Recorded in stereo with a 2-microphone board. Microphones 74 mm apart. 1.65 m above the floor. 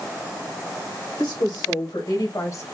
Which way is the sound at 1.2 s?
85° left.